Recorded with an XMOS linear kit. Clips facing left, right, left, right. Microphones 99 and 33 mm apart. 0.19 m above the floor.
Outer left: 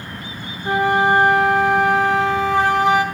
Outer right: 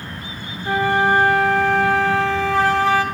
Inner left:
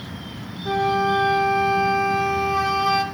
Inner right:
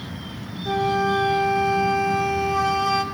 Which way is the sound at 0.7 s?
20° left (ahead or behind).